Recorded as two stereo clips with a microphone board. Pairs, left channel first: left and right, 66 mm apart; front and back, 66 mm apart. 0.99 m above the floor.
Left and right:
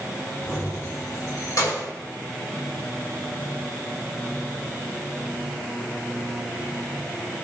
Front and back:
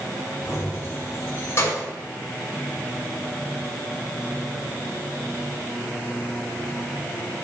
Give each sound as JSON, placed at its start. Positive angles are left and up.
{"t": 0.5, "sound": "keys jangling", "azimuth_deg": 50, "distance_m": 4.5}